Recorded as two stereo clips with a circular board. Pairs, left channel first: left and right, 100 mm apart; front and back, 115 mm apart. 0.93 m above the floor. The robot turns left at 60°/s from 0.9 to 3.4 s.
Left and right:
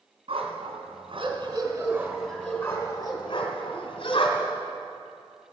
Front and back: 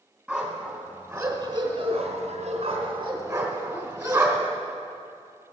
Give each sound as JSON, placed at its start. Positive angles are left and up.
{"t": 0.3, "sound": "a dog barking", "azimuth_deg": -100, "distance_m": 2.5}